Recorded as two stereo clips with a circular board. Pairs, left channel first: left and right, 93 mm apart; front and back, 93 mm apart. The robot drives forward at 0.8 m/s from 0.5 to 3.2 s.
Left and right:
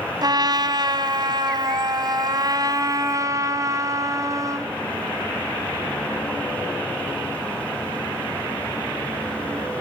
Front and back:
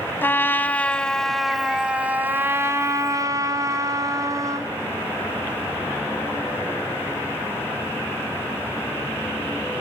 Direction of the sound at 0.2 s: 65° right.